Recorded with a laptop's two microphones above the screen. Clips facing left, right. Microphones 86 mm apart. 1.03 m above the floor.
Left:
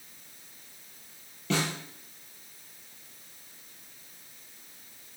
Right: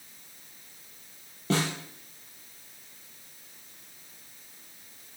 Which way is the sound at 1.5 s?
35° right (ahead or behind).